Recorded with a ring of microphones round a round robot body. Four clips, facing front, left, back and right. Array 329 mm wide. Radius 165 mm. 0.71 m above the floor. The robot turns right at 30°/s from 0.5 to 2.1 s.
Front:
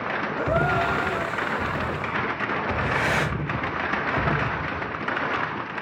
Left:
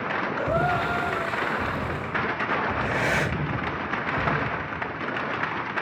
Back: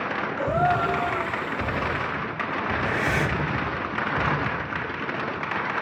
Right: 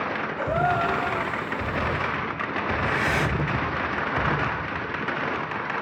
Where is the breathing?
65° left, 5.5 m.